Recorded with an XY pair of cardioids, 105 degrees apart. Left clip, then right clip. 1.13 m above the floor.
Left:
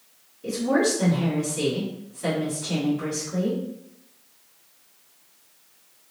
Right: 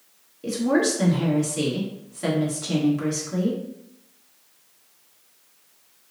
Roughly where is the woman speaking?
Ahead right.